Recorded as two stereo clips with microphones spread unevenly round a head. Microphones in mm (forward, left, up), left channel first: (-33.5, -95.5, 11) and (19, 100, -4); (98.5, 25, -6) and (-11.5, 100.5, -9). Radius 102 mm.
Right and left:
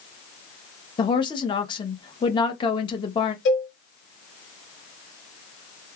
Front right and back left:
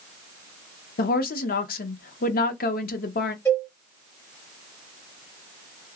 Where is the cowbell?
115° right, 1.8 m.